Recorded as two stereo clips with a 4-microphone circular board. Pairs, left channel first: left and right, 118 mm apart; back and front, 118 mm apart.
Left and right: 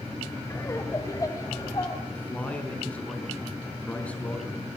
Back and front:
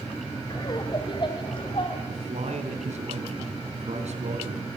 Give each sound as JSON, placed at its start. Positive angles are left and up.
{"t": 0.5, "sound": "laughter", "azimuth_deg": 145, "distance_m": 2.0}
{"t": 2.1, "sound": "a man speaking", "azimuth_deg": 10, "distance_m": 4.5}